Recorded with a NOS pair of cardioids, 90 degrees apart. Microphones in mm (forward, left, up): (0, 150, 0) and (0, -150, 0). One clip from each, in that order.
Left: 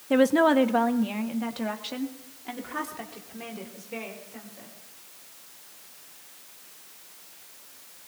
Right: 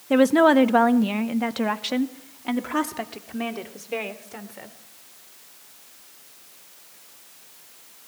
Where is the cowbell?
I don't hear a cowbell.